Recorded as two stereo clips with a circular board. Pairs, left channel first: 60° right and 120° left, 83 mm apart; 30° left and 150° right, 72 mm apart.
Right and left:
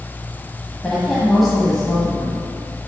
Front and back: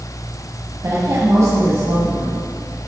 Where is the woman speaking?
145° right, 1.6 m.